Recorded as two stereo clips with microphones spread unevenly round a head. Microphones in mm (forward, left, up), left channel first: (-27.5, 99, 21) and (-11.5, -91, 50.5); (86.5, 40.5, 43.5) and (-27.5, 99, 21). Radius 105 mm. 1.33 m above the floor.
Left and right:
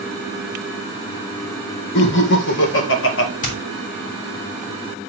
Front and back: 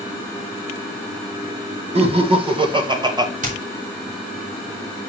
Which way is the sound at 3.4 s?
145° left.